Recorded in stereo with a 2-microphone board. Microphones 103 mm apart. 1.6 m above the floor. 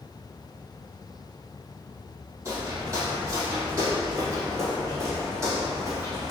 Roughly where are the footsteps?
Right.